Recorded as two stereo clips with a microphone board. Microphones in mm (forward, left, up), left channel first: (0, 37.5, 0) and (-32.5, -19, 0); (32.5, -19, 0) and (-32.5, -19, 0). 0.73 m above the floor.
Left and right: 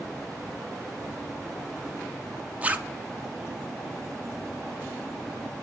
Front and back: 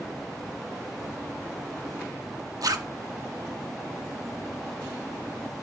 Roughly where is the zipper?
Behind.